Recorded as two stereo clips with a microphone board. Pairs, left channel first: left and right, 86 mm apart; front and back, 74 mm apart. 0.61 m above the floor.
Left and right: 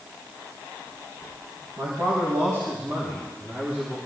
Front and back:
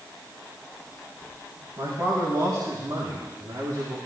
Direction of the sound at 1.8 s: 140° right.